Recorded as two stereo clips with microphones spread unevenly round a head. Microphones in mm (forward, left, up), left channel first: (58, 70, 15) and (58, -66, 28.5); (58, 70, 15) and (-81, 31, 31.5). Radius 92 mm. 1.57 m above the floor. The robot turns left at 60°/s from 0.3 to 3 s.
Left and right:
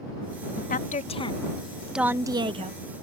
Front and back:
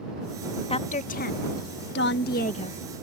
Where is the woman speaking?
70° left; by 2.8 s 55° right.